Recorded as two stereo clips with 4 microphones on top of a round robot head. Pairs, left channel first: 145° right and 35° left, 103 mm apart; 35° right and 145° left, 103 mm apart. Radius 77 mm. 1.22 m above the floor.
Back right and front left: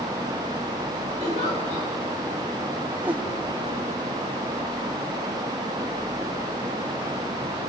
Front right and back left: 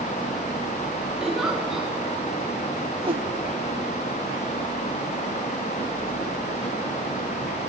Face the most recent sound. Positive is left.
turn(degrees=110)